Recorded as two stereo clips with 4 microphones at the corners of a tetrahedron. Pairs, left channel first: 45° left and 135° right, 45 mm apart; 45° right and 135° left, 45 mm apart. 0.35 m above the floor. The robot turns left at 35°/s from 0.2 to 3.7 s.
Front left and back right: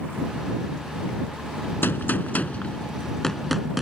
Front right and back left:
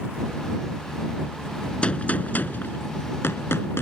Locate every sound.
1.8 s a gunshot: 15° left; by 3.8 s 50° right